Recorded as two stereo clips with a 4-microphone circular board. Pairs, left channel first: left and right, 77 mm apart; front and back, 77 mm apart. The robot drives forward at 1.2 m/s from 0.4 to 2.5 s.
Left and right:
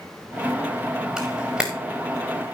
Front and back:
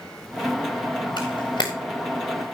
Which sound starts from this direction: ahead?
A camera shutter, at 1.2 s.